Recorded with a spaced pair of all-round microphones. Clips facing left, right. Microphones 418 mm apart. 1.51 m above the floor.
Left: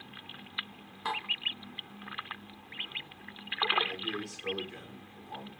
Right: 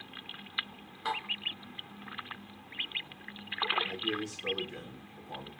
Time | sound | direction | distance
1.1 | dishes clattering | 5° left (ahead or behind) | 0.9 m
3.8 | a man speaking | 50° right (ahead or behind) | 1.1 m